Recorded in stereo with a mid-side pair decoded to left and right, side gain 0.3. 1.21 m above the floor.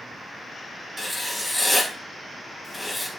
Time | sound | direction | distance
1.0 | writing | 25° left | 2 m